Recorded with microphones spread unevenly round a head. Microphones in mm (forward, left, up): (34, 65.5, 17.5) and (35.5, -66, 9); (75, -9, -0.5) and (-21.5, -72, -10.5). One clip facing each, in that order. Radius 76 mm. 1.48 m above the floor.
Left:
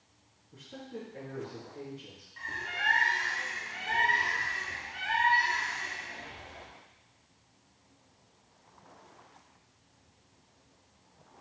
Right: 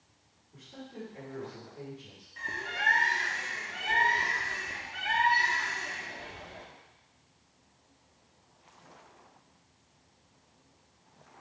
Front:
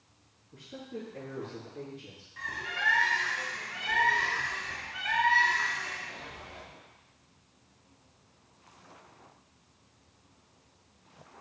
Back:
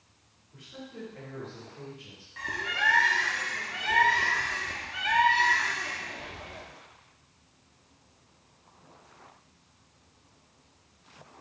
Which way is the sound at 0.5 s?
55° left.